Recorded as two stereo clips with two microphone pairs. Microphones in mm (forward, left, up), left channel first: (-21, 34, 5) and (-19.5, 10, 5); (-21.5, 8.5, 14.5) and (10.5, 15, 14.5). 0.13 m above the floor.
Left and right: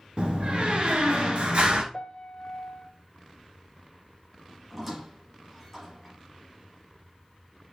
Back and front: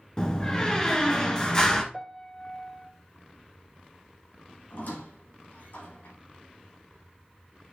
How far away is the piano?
About 0.6 m.